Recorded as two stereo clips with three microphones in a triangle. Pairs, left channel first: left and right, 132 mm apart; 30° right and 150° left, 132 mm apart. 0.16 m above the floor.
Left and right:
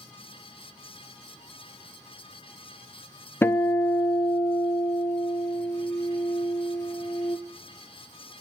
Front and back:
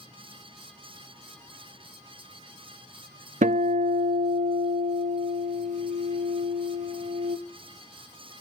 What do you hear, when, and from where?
3.4 s a guitar: 160° left, 0.6 m